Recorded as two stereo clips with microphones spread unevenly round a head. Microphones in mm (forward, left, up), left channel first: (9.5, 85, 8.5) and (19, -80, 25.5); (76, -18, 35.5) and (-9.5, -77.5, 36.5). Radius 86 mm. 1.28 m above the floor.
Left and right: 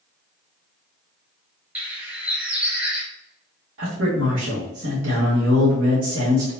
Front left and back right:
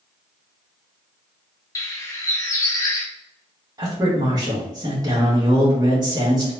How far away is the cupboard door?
No cupboard door in this recording.